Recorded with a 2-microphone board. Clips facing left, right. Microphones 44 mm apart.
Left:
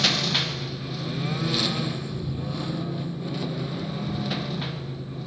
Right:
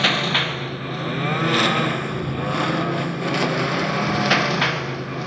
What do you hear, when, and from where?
0.0 s a lawn mower: 30° right (ahead or behind); by 5.3 s 75° right (ahead or behind)